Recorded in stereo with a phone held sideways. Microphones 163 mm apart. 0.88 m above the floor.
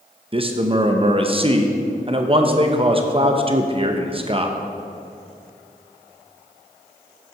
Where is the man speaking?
35° right (ahead or behind), 0.6 m.